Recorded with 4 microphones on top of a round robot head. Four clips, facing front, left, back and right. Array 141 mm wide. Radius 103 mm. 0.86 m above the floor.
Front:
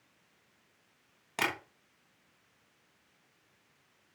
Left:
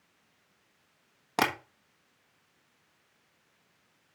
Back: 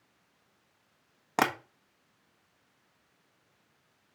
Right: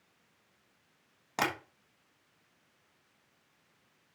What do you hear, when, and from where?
1.4 s tapping: 155° left, 1.4 m